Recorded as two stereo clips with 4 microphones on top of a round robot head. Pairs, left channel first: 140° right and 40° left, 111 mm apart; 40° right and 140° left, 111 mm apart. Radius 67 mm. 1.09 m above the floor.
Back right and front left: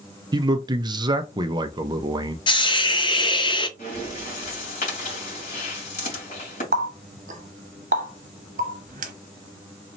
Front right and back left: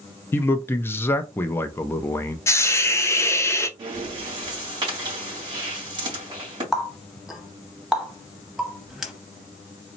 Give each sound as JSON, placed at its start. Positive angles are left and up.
{"t": 0.3, "sound": "a man speaking", "azimuth_deg": 20, "distance_m": 0.5}
{"t": 2.5, "sound": "a hiss", "azimuth_deg": -100, "distance_m": 0.7}
{"t": 3.8, "sound": "breathing", "azimuth_deg": -165, "distance_m": 2.5}
{"t": 6.7, "sound": "a running tap", "azimuth_deg": 50, "distance_m": 0.9}